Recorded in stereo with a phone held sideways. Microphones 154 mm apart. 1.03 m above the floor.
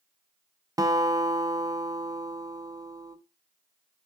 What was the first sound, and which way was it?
A guitar, 25° right (ahead or behind).